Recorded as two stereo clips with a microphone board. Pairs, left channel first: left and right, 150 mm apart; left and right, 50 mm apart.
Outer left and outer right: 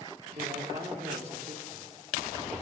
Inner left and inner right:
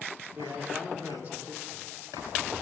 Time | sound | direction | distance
0.3 | a man speaking | 40° right (ahead or behind) | 1.0 m